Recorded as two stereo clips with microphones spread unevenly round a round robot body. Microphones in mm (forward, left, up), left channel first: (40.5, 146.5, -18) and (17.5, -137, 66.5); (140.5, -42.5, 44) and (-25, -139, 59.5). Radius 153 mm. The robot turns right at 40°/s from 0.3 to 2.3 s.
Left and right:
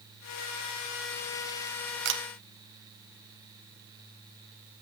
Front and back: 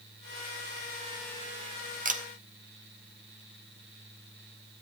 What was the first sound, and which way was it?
A camera shutter, 140° right.